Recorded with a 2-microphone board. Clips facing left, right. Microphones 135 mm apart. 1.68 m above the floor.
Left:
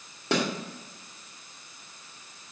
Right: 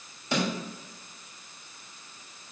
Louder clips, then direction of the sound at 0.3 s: Left 2 dB; 70° left (ahead or behind).